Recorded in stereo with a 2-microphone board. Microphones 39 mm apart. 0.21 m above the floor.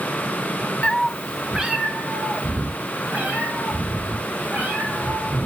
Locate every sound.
0.8 s a cat meowing: 30° left (ahead or behind), 0.5 m; by 5.5 s 30° right (ahead or behind), 5.5 m